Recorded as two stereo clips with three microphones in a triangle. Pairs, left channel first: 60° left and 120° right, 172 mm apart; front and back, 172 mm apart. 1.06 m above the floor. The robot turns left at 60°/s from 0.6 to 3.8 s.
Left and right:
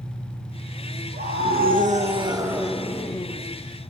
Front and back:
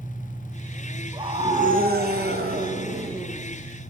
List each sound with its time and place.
0.0 s an engine running: 100° right, 3 m; by 3.9 s 65° left, 3 m
1.1 s a scream: 115° right, 1.0 m; by 3.5 s 105° left, 1.0 m